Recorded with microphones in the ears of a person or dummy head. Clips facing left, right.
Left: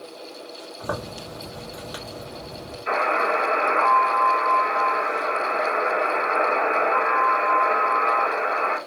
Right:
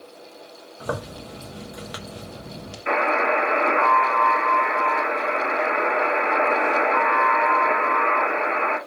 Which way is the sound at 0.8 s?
30° right (ahead or behind).